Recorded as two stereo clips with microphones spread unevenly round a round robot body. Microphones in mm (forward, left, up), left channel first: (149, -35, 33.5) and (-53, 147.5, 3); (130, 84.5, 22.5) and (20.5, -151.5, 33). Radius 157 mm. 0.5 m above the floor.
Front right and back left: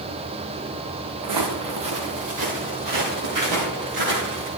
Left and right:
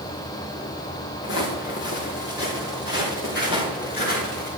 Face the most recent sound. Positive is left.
turn(degrees=125)